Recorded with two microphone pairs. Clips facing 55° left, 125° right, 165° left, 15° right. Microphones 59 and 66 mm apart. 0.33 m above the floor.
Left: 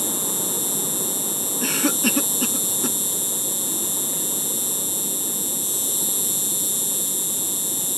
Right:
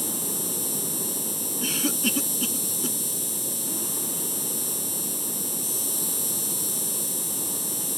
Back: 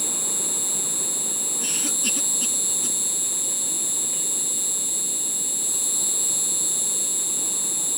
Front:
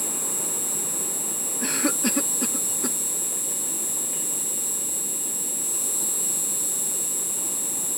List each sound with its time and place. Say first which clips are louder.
0.0 s an insect: left 4 dB, even; 170° right
1.6 s a cough: left 5 dB, front 8 dB; 20° left